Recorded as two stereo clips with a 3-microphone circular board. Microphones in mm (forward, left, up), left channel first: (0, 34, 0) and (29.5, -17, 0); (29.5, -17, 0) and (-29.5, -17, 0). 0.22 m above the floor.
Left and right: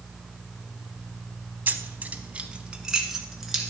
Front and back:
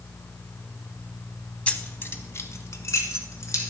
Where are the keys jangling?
50° right, 0.7 m; by 3.7 s 25° left, 1.8 m.